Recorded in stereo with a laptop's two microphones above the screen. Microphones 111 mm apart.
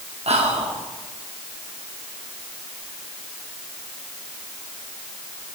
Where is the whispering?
70° right (ahead or behind), 1.3 m.